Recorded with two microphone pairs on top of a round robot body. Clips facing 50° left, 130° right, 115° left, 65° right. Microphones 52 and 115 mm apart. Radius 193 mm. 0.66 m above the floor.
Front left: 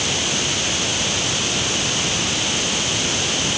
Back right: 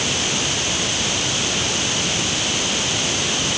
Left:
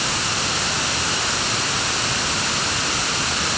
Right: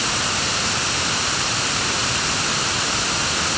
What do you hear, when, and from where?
Only background noise.